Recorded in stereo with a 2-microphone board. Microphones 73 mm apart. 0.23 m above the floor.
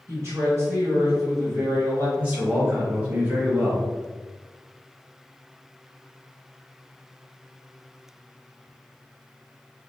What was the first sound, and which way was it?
A woman speaking, 40° right (ahead or behind).